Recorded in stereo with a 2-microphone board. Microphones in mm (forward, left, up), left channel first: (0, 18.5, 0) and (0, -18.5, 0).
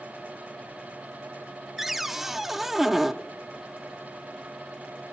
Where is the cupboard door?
5° right (ahead or behind), 0.5 m.